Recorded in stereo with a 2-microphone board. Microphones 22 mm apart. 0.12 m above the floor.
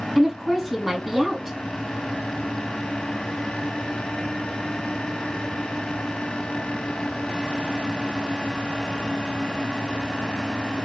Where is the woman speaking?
10° right (ahead or behind), 3.5 m.